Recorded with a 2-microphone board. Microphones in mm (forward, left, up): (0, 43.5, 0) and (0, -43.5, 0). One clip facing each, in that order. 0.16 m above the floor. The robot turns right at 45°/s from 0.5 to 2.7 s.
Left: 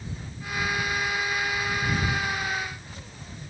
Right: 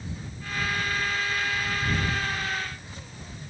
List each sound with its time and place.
Only background noise.